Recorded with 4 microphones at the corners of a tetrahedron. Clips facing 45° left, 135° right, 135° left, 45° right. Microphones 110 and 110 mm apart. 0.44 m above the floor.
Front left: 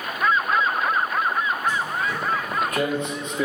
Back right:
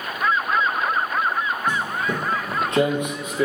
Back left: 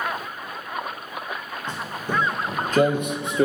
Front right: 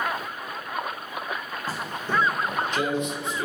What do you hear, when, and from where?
1.7 s footsteps: 130° right, 0.8 m; by 3.5 s 135° left, 0.9 m